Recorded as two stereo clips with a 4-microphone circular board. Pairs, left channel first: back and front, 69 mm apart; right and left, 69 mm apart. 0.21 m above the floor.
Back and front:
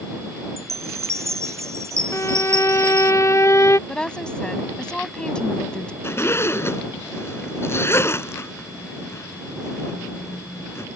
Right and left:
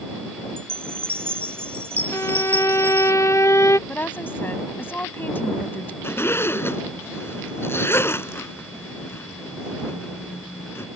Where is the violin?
135° right.